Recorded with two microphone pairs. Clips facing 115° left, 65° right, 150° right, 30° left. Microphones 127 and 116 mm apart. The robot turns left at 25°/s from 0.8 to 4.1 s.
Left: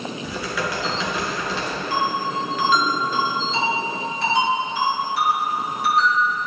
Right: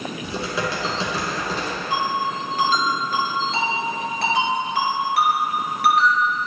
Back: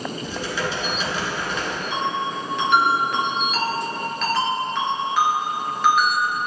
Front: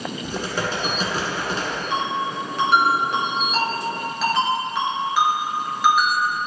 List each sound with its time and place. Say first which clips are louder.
0.2 s typing on a keyboard: right 2 dB, front 2 dB; 10° right, 1.8 m; by 1.8 s 35° right, 1.8 m
1.9 s a ringtone: even, front 1 dB; straight ahead, 1.9 m; by 6.2 s 55° right, 1.9 m